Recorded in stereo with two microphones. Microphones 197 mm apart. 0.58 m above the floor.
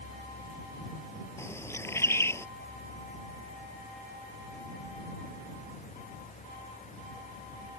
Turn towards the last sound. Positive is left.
turn(degrees=15)  # may be behind; listen again after turning